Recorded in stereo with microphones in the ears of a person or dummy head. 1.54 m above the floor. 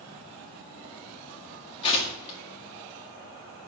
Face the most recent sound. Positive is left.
turn(degrees=35)  # may be behind; listen again after turning